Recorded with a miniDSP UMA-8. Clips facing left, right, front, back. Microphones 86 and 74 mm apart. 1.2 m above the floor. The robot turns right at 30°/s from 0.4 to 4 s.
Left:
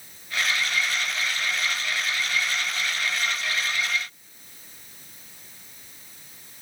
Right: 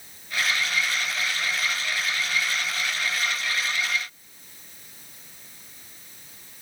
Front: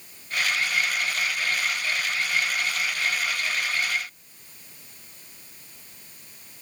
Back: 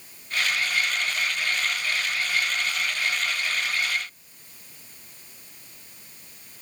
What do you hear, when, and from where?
Only background noise.